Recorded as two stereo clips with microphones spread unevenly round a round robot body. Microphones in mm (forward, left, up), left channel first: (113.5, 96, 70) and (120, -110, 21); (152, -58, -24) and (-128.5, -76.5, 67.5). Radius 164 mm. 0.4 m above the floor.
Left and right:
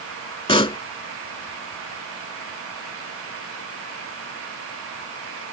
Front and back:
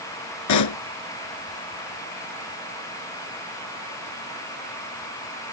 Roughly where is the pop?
Ahead left.